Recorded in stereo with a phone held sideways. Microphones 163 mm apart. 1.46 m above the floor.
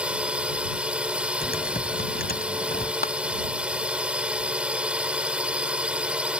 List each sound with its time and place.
0.0 s a drone: 5° right (ahead or behind)
1.4 s typing on a keyboard: 70° left (ahead or behind)
3.0 s a clap: 75° left (ahead or behind)